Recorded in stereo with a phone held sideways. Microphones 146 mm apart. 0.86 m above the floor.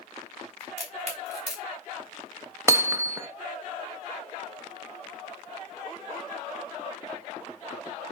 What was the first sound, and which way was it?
A crack, 50° right (ahead or behind).